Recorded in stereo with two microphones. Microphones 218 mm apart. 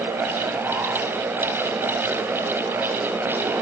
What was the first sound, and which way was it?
Only background noise.